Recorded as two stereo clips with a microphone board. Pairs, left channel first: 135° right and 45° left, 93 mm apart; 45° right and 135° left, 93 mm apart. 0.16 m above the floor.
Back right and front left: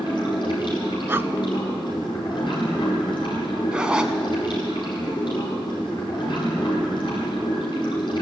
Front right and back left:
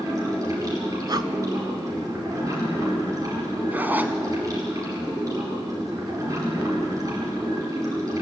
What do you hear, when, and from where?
0.0 s running water: 175° right, 9 m
1.1 s breathing: 105° left, 0.7 m
3.7 s a zipper: 110° left, 1.2 m